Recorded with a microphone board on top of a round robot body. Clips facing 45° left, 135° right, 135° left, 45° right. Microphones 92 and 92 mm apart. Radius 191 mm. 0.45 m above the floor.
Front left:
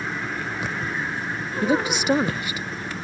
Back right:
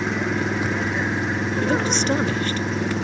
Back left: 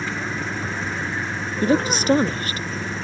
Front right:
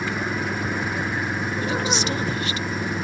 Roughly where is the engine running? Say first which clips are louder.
Back right 6 dB, front right 1 dB; behind right.